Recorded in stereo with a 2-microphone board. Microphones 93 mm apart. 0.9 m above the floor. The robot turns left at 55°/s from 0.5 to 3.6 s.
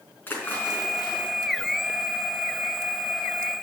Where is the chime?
I don't hear a chime.